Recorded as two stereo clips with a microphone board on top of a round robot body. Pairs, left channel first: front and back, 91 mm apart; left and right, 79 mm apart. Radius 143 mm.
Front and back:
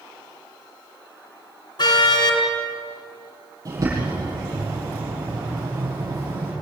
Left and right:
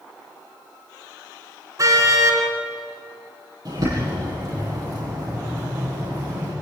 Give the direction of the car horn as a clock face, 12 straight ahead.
1 o'clock.